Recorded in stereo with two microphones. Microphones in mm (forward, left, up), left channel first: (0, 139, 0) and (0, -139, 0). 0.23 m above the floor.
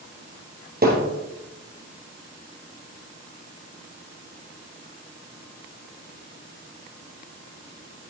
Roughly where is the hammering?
Right.